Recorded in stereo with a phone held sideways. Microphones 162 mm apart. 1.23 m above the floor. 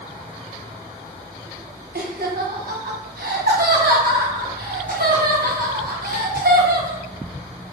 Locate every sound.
1.9 s laughter: 75° right (ahead or behind), 0.9 m